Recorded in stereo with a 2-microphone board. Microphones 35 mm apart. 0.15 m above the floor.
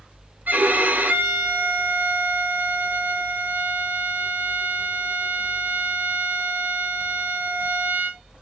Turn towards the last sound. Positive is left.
turn(degrees=-60)  # may be behind; listen again after turning